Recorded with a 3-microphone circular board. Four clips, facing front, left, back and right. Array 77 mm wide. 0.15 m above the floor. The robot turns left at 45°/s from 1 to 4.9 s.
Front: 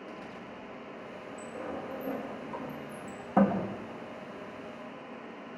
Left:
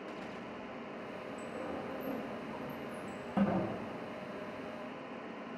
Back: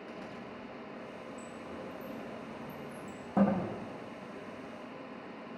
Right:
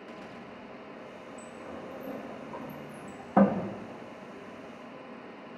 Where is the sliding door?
25° left, 6 m; by 3.6 s 75° right, 6 m.